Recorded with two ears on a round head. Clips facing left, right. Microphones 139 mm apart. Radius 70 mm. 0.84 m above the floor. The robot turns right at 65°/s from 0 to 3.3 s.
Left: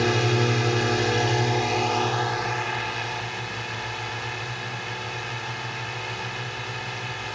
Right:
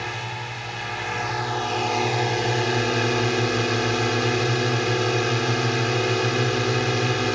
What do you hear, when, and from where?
0.0 s a drone: 60° left; by 7.3 s 85° right